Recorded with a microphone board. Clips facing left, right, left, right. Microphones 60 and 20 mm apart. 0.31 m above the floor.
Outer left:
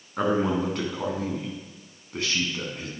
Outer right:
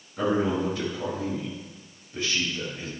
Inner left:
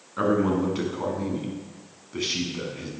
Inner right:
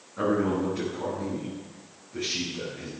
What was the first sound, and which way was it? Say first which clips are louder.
A man speaking: outer left 1 dB, inner left 3 dB; 60° left (ahead or behind).